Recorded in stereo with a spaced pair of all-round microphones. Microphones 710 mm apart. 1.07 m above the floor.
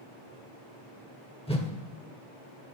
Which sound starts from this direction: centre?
A whoosh, at 1.5 s.